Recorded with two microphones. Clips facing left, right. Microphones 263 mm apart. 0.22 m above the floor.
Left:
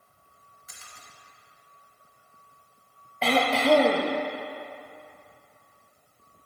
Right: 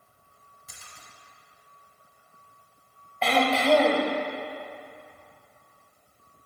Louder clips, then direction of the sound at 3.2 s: Even; 40° left (ahead or behind).